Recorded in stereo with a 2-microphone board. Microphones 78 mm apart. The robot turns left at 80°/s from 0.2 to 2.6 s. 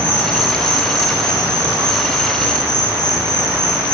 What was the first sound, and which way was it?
An insect, 155° right.